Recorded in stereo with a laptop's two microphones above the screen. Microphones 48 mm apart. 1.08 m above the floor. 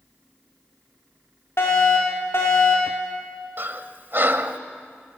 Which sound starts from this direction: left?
A fire alarm, at 1.6 s.